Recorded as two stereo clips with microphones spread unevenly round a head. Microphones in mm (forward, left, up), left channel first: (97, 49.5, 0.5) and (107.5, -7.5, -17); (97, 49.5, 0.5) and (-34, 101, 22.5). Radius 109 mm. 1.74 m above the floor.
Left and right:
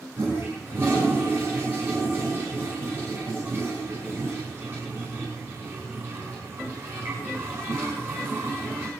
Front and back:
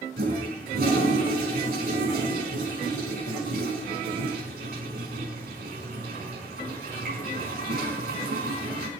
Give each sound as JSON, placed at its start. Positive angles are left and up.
{"t": 0.2, "sound": "a toilet flushing", "azimuth_deg": -155, "distance_m": 5.0}